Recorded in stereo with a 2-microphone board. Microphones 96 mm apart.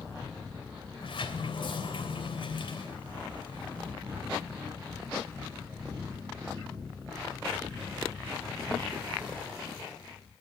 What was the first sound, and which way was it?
A sliding door, 60° left (ahead or behind).